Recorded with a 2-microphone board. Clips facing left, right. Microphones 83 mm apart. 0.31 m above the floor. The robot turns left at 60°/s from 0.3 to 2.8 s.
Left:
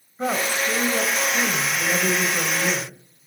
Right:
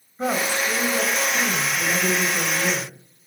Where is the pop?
No pop in this recording.